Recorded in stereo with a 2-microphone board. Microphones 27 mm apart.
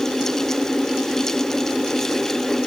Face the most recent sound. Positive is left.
No sound to turn to.